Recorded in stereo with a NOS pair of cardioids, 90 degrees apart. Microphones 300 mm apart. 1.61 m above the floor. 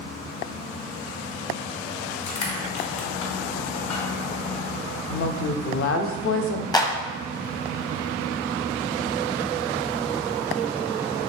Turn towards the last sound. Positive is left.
turn(degrees=15)